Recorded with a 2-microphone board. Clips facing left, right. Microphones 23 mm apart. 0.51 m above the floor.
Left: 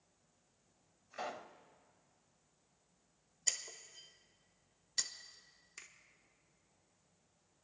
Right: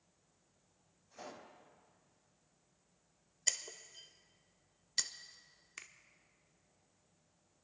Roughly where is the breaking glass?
Centre.